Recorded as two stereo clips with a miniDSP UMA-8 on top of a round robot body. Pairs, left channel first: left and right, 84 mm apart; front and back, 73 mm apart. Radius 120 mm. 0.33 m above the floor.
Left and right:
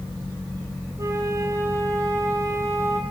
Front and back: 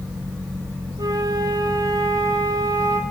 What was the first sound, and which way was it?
A flute, 145° right.